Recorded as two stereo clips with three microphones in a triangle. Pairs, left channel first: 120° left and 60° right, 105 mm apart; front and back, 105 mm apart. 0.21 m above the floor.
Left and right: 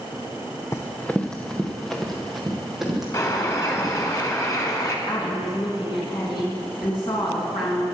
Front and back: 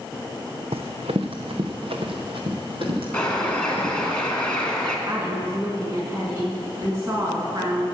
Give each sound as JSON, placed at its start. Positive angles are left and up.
{"t": 0.7, "sound": "running footsteps", "azimuth_deg": 180, "distance_m": 0.6}
{"t": 3.1, "sound": "a bird", "azimuth_deg": 80, "distance_m": 1.8}
{"t": 5.1, "sound": "a woman speaking", "azimuth_deg": 130, "distance_m": 2.5}